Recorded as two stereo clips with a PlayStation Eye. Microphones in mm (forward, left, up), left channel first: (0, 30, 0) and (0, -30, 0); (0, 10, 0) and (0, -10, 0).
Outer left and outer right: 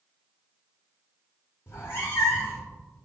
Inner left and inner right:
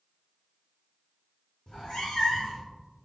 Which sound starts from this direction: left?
A cat meowing, at 1.7 s.